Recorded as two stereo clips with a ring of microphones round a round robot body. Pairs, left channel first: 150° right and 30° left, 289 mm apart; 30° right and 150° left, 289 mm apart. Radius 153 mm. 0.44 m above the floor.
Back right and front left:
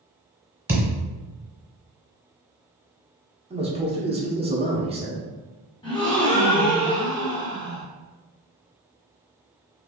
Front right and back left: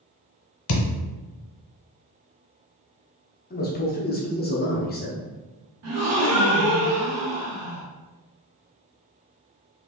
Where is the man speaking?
20° right, 0.9 m.